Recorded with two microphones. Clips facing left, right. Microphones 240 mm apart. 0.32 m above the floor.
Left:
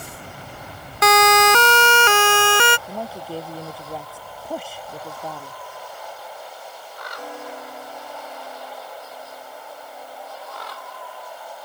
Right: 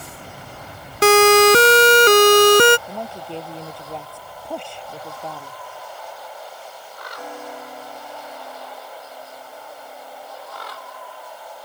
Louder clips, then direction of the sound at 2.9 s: Left 1 dB; 5° left (ahead or behind).